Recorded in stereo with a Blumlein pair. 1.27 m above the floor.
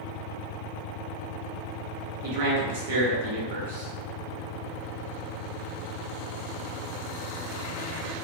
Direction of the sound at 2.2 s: 55° right.